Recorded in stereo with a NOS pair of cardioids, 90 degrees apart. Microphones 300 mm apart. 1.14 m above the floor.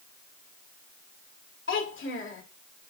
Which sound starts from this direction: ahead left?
A child speaking, at 1.7 s.